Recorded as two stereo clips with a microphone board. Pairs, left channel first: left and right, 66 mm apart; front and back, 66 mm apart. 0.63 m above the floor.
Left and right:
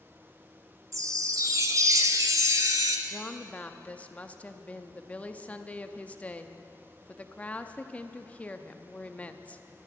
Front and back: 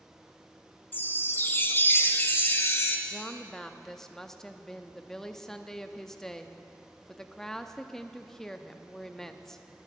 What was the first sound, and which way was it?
A chime, 55° right.